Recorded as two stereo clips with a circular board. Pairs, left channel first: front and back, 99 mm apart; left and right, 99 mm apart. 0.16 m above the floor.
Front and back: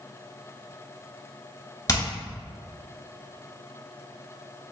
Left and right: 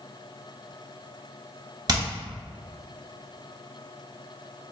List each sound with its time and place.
1.9 s hammering: 50° right, 1.3 m